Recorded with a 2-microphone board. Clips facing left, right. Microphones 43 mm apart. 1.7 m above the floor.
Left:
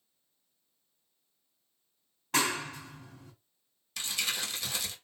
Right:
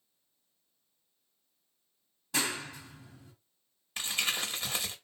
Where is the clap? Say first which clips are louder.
Left 4 dB; 55° left (ahead or behind), 3 m.